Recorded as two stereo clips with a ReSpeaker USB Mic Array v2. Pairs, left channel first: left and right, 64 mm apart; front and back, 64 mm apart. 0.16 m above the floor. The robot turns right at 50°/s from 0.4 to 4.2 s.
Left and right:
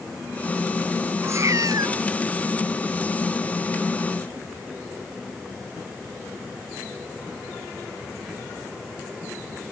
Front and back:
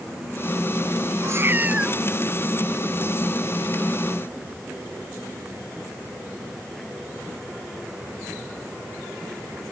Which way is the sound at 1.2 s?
140° right.